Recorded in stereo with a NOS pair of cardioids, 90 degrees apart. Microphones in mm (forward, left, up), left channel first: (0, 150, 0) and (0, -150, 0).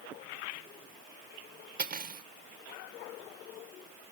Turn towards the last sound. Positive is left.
turn(degrees=-35)